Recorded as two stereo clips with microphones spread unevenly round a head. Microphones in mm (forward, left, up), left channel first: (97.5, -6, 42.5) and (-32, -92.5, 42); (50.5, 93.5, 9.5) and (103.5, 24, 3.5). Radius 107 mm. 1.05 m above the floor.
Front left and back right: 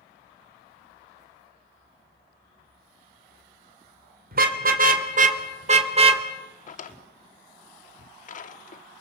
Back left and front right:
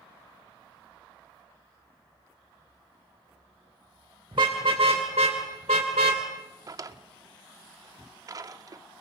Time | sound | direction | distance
4.3 | a car horn | 120° right | 2.5 m
6.7 | a drawer | straight ahead | 1.3 m